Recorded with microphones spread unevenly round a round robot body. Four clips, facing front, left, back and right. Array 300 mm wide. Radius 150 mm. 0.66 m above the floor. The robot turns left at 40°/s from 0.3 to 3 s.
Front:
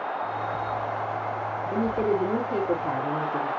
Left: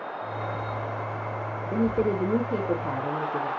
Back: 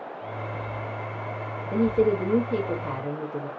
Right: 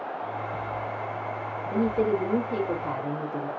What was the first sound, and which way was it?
A woman speaking, 75° left.